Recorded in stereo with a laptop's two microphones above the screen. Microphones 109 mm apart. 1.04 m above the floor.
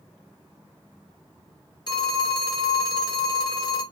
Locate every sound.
1.9 s a phone ringing: 40° left (ahead or behind), 1.0 m